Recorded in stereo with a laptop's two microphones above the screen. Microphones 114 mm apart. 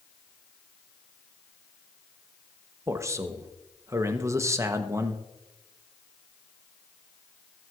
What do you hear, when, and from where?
2.9 s a man speaking: 25° right (ahead or behind), 0.9 m